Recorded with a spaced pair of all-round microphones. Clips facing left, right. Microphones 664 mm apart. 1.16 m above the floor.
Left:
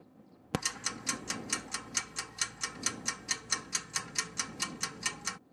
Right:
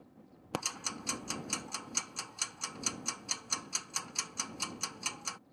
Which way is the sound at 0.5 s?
50° left (ahead or behind).